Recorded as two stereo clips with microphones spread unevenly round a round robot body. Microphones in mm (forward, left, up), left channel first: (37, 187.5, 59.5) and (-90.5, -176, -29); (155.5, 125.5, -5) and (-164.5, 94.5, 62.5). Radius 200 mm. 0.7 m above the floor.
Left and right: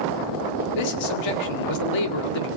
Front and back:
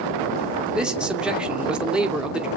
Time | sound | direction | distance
0.8 | a man speaking | 95° left | 2.5 m